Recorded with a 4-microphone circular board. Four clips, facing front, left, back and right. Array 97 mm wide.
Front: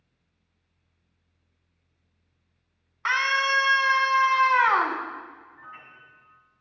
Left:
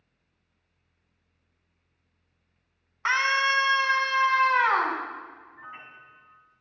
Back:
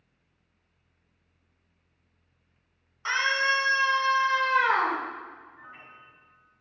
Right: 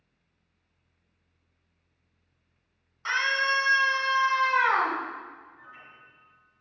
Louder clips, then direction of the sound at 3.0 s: Left 3 dB, front 2 dB; 55° left.